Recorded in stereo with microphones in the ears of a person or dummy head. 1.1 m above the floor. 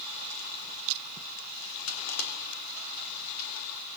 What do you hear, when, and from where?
1.9 s crushing: 85° left, 4 m